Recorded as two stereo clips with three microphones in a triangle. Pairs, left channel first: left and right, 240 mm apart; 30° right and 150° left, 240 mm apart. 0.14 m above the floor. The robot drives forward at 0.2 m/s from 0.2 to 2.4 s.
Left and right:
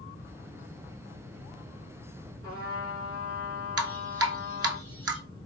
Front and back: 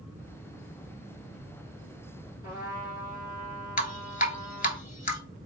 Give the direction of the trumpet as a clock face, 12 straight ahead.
4 o'clock.